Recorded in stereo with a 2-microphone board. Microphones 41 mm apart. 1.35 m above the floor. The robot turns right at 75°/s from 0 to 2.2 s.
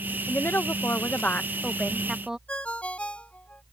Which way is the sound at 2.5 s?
35° left (ahead or behind).